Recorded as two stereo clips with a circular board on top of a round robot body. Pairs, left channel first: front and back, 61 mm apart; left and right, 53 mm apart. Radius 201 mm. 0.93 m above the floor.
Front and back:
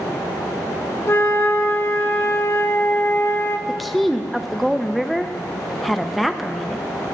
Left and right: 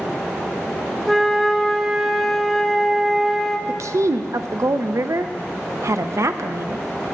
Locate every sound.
1.1 s a flute: 5° right, 0.9 m
3.7 s a woman speaking: 90° right, 0.6 m